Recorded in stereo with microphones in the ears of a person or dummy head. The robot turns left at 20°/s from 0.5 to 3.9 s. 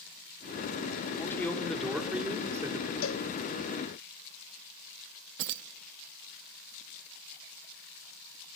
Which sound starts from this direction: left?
A cowbell, at 3.0 s.